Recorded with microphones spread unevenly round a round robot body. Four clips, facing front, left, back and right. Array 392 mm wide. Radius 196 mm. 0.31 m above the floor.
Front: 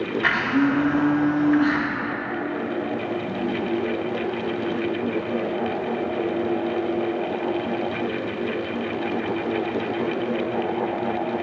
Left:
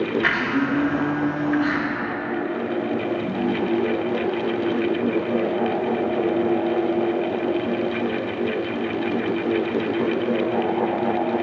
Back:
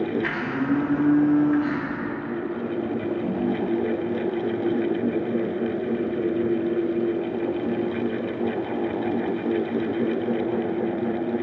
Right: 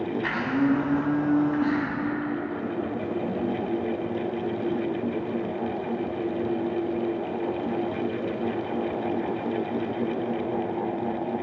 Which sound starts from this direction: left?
A blender, at 0.2 s.